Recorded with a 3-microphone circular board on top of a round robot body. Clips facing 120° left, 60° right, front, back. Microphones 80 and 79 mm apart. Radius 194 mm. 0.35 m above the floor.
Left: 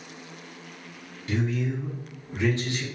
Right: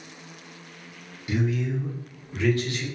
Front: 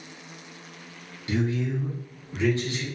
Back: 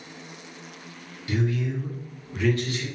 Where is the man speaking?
5° left, 0.9 m; by 2.8 s 60° left, 1.3 m.